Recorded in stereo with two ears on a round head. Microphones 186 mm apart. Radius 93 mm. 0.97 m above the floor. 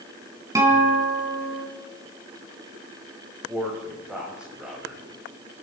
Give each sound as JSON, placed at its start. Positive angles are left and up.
{"t": 0.6, "sound": "a guitar", "side_deg": -15, "distance_m": 3.5}
{"t": 3.5, "sound": "a man speaking", "side_deg": -5, "distance_m": 5.0}